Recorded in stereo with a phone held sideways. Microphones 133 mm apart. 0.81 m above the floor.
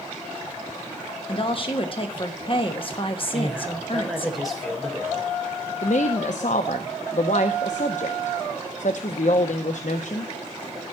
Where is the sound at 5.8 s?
65° left (ahead or behind), 0.6 m.